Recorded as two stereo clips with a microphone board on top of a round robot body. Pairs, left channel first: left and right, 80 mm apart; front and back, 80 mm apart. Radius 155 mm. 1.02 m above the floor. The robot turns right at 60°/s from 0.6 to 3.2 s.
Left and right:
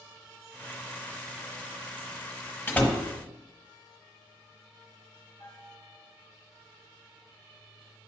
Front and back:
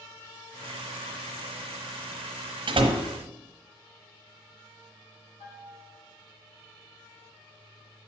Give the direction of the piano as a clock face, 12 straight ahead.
11 o'clock.